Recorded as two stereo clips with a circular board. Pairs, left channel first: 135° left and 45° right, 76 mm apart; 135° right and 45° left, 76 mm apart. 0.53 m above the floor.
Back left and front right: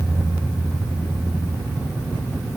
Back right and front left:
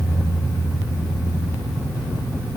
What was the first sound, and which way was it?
Only background noise.